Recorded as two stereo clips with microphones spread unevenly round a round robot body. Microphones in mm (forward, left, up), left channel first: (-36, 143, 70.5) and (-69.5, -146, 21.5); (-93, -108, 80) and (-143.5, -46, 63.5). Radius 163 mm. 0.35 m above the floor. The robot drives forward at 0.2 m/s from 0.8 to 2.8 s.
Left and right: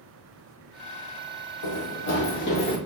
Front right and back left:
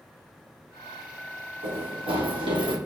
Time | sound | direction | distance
1.6 | running footsteps | 105° left | 1.1 m